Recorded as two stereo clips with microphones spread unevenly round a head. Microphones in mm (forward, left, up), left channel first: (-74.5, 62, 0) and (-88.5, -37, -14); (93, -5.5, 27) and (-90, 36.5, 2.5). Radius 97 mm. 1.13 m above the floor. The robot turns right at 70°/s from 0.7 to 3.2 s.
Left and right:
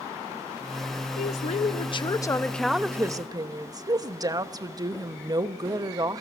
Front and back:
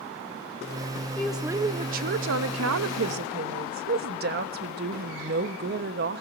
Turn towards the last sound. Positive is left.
turn(degrees=-150)